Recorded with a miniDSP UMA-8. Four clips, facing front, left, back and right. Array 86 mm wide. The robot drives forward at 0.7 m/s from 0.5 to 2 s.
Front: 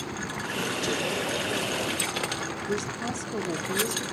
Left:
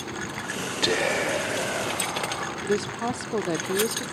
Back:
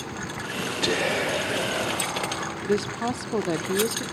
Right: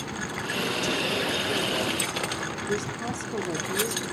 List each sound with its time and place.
0.8 s whispering: 115° left, 2.0 m; by 2.5 s 135° left, 2.5 m
2.6 s a woman speaking: 140° left, 0.9 m